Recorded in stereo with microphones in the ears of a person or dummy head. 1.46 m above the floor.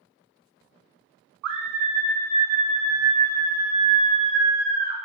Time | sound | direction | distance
1.4 | a scream | 80° right | 0.6 m